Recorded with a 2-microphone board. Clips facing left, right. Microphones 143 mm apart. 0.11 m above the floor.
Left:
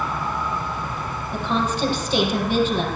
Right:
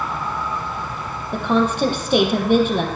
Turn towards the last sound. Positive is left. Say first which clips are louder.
# right 5 dB
turn(degrees=-60)  # may be behind; listen again after turning